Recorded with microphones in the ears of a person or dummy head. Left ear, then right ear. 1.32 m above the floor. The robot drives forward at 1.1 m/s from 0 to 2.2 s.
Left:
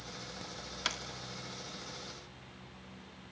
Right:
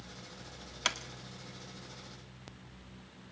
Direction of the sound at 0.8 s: 15° right (ahead or behind).